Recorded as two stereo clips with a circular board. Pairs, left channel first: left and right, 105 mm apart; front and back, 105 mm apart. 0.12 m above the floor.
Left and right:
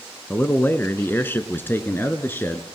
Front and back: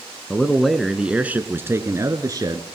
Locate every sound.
0.3 s a man speaking: 65° left, 1.6 m; by 2.6 s 155° left, 2 m